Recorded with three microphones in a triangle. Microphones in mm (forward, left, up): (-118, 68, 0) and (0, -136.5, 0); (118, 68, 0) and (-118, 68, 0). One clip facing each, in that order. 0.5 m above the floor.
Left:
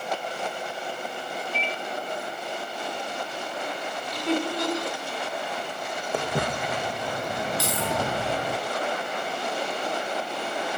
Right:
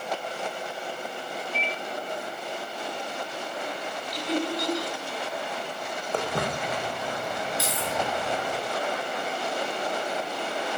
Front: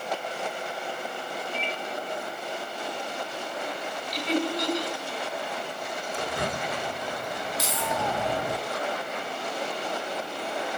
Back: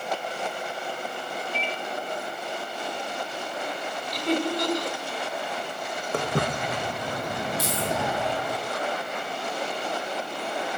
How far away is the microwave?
About 1.6 m.